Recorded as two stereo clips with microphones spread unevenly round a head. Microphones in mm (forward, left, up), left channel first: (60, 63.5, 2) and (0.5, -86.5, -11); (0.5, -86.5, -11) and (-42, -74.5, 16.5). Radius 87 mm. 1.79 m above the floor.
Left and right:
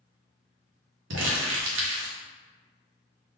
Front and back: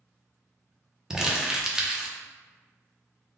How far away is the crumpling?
About 0.9 m.